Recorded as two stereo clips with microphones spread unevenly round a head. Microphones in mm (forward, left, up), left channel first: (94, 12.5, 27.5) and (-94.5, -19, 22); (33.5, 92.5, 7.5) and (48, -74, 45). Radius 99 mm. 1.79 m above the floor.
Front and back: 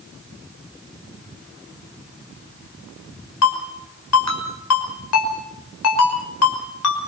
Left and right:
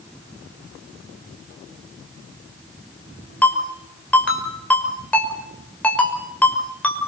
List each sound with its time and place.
3.4 s a ringtone: 10° left, 5.5 m